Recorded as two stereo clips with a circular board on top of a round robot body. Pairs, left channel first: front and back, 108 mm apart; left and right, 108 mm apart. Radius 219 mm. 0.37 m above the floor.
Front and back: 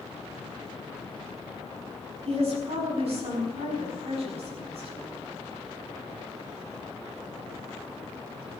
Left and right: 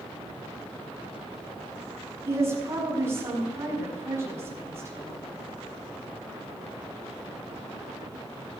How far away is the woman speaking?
About 5.5 m.